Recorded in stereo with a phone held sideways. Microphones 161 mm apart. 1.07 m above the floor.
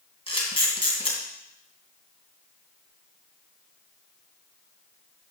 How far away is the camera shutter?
About 2.5 m.